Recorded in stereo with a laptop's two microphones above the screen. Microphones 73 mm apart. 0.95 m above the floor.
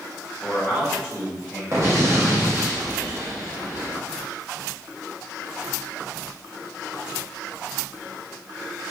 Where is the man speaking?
5° left (ahead or behind), 0.9 m; by 1.6 s 30° right (ahead or behind), 1.3 m.